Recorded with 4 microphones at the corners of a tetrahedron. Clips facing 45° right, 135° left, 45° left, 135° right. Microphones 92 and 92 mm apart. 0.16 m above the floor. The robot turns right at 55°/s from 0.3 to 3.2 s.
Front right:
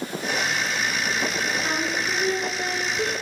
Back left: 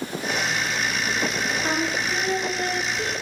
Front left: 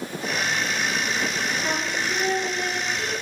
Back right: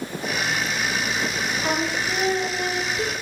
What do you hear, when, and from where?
1.6 s singing: 165° right, 0.7 m; by 3.1 s 80° right, 0.7 m